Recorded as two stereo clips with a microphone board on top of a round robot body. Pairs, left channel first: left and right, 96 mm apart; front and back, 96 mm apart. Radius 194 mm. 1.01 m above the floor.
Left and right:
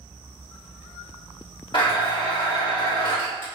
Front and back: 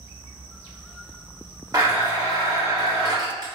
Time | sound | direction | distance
1.7 | a blender | 125° left | 1.0 m